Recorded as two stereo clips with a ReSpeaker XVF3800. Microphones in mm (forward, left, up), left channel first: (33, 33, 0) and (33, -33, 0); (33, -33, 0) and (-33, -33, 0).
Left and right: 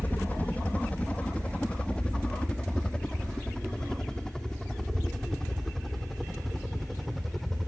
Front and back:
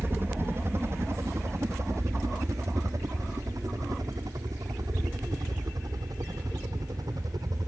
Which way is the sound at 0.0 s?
140° left.